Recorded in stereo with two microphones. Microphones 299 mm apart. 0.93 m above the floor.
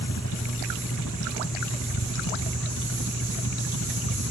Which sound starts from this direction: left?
A helicopter, at 0.0 s.